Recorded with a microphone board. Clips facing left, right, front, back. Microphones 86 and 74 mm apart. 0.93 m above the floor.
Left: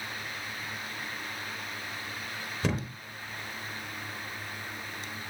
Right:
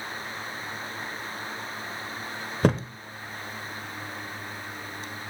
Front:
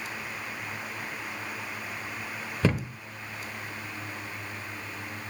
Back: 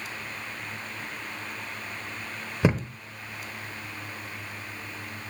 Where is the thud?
115° right, 0.9 m.